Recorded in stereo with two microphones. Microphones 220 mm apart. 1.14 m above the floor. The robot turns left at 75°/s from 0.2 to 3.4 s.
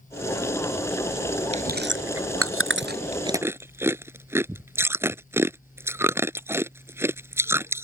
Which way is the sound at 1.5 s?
30° right (ahead or behind).